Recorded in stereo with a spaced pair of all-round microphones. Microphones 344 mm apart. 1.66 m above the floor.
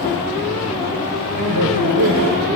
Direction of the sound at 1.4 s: 70° right (ahead or behind).